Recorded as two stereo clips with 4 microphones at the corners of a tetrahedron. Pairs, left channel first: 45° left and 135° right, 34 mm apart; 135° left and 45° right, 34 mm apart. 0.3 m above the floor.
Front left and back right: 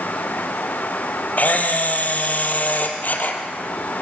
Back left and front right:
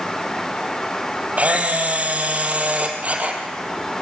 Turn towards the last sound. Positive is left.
turn(degrees=5)